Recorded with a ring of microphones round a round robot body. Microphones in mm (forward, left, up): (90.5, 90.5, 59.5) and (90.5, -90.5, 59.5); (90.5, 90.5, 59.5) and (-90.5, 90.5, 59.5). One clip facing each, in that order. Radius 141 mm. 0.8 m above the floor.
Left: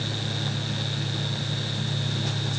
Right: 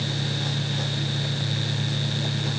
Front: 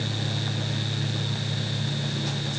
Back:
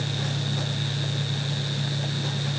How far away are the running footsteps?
I don't hear running footsteps.